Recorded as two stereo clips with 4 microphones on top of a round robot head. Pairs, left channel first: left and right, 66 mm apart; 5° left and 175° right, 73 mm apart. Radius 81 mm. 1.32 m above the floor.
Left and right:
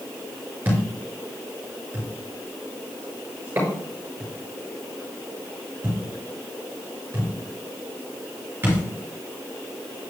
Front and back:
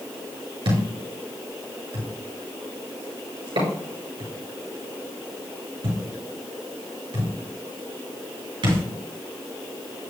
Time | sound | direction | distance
0.7 | a thud | 160° right | 5 m